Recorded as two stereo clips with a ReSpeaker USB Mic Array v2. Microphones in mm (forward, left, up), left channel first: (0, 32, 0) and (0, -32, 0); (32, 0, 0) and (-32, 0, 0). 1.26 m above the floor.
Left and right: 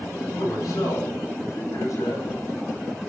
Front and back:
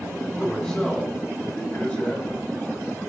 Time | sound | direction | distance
0.4 | a man speaking | 80° left | 7.5 m